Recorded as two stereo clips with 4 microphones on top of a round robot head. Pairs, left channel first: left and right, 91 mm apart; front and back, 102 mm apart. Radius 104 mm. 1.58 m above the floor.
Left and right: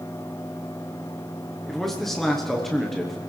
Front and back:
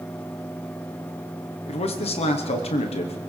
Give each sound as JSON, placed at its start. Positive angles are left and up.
{"t": 1.7, "sound": "a man speaking", "azimuth_deg": 5, "distance_m": 1.1}